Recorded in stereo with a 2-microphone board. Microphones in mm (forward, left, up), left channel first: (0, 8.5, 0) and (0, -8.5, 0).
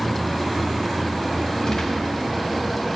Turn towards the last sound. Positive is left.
turn(degrees=40)  # may be behind; listen again after turning